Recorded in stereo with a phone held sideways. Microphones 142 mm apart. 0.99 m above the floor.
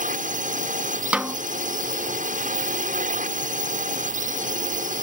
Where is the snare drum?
10° right (ahead or behind).